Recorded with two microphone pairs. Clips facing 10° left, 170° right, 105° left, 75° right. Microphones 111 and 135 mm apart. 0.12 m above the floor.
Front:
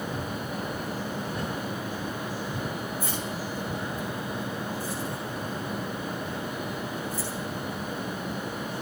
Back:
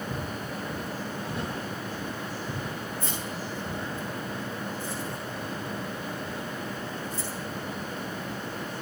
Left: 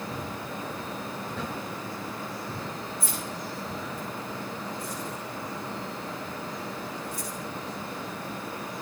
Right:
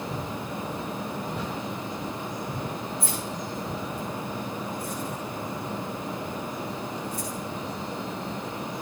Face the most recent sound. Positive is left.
turn(degrees=-110)